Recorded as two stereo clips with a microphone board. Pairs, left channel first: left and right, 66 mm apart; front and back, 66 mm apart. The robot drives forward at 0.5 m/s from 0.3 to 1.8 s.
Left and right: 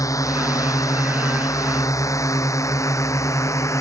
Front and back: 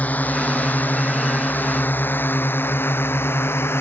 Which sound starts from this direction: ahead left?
A drone, at 0.0 s.